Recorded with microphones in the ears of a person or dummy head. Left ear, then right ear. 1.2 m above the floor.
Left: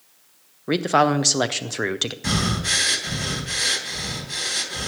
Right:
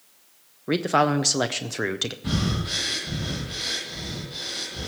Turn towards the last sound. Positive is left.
turn(degrees=65)  # may be behind; listen again after turning